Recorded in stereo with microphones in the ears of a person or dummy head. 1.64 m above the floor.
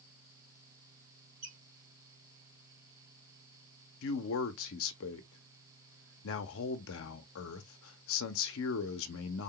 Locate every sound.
1.4 s a squeak: 50° right (ahead or behind), 1.9 m
4.0 s a man speaking: 65° left (ahead or behind), 0.5 m